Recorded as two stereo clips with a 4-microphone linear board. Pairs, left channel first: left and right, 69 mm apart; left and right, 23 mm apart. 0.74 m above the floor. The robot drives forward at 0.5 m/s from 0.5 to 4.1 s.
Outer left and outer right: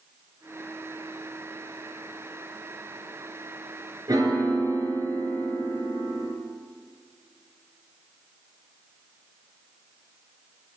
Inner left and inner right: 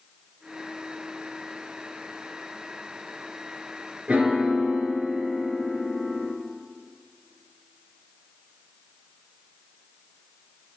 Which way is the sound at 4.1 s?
55° right (ahead or behind).